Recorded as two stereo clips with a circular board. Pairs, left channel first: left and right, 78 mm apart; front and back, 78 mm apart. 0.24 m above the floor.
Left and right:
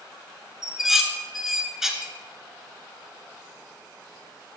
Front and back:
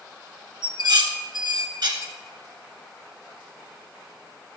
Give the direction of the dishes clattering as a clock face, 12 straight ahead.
6 o'clock.